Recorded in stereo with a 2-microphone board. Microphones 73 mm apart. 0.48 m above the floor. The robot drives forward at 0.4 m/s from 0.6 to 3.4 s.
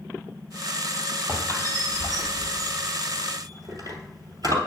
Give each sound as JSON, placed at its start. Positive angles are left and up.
{"t": 1.3, "sound": "a squeak", "side_deg": -45, "distance_m": 3.0}